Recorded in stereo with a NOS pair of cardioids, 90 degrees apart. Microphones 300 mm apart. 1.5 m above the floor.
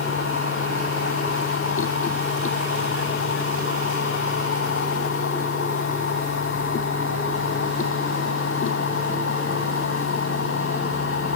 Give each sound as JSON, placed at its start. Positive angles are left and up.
{"t": 0.0, "sound": "a machine running", "azimuth_deg": 45}